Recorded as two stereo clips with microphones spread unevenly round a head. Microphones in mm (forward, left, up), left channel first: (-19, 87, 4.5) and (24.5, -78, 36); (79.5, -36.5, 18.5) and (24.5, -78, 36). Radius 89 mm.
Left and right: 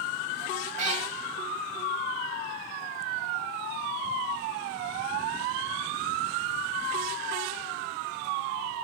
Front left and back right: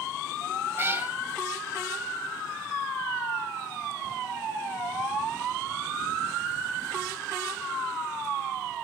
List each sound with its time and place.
0.8 s a cat meowing: 110° right, 1.8 m